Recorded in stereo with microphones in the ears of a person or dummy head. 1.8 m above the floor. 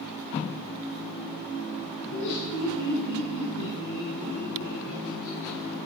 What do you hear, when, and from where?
2.0 s laughter: 80° left, 6.5 m; by 5.8 s 70° left (ahead or behind), 10 m